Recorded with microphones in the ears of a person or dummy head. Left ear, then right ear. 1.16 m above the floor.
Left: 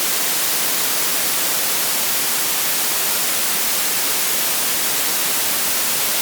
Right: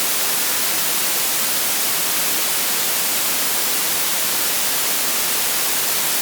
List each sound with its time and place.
Only background noise.